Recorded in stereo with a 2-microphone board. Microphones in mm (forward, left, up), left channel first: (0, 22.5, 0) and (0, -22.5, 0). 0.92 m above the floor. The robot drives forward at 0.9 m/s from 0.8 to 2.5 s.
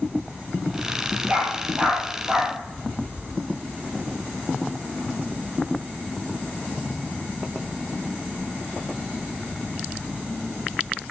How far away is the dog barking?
About 6.5 m.